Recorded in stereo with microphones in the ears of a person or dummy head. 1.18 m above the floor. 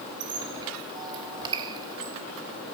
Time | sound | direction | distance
0.2 | a squeak | 20° right (ahead or behind) | 0.9 m